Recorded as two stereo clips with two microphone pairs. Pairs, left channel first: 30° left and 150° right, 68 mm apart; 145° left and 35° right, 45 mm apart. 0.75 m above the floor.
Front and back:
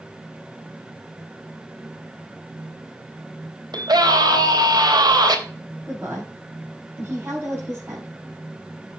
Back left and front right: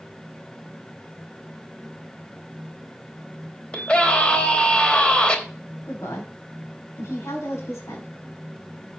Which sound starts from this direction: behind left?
A woman speaking, at 5.8 s.